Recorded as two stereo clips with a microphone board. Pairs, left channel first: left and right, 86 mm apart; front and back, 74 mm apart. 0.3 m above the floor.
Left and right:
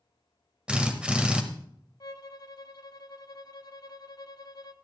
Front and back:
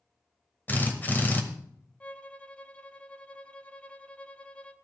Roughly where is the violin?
Ahead left.